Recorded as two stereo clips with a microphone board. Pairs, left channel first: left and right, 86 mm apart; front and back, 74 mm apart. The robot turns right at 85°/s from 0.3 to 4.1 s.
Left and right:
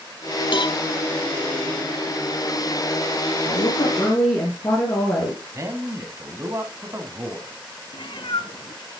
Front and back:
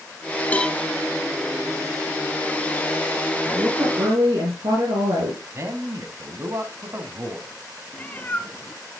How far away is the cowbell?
About 0.5 m.